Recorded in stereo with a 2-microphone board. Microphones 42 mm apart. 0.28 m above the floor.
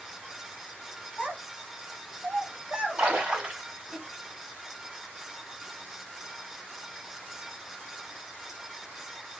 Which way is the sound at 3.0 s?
25° right (ahead or behind).